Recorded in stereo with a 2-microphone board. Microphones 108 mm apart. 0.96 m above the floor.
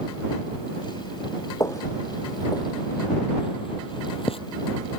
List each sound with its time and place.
1.6 s footsteps: 30° left (ahead or behind); by 4.4 s 60° left (ahead or behind)